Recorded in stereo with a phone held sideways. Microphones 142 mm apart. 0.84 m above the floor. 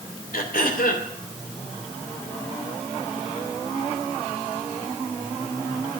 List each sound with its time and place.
0.3 s throat clearing: 75° left (ahead or behind), 2.5 m